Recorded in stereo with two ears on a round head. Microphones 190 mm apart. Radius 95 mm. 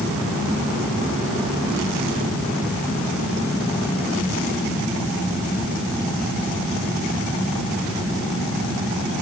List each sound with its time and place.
Only background noise.